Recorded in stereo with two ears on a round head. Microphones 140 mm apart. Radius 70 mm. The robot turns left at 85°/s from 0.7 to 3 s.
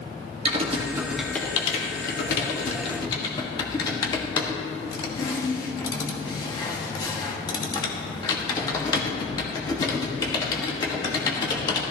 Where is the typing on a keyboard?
40° right (ahead or behind), 1.4 m; by 11.8 s 25° left (ahead or behind), 1.4 m.